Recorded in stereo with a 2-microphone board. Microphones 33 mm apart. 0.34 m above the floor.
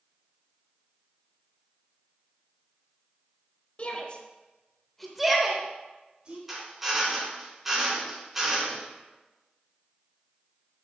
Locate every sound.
3.8 s a shout: 40° left (ahead or behind), 1.4 m; by 6.4 s 35° right (ahead or behind), 1.4 m
6.5 s a drill: 10° right (ahead or behind), 3 m